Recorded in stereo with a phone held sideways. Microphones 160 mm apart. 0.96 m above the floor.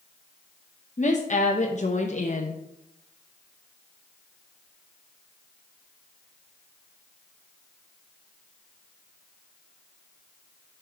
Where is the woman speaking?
50° left (ahead or behind), 0.7 m.